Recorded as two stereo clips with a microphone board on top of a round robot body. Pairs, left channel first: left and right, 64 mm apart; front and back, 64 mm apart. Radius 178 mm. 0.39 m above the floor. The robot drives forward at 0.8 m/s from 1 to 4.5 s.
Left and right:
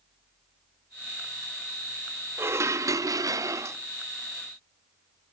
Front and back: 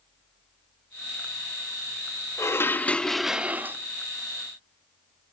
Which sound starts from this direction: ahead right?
Dishes clattering, at 2.4 s.